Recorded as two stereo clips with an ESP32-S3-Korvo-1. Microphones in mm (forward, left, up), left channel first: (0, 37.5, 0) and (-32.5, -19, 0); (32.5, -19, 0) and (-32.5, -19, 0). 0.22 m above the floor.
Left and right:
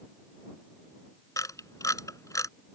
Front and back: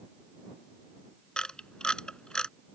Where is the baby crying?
No baby crying in this recording.